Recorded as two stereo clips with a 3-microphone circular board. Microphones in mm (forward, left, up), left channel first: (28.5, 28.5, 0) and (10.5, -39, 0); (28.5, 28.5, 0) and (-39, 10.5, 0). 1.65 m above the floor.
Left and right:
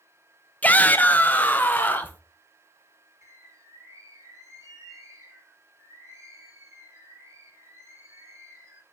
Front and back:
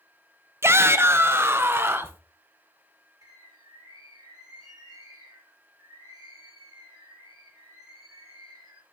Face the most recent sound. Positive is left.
turn(degrees=-150)